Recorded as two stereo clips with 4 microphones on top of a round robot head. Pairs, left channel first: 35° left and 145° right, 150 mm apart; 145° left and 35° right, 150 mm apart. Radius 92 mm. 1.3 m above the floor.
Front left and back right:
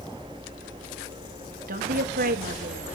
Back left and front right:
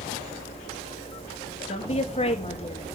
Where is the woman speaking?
165° right, 2.5 m.